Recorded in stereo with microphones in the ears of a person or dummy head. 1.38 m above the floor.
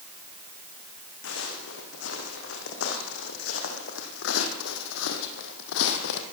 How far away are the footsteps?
About 6 m.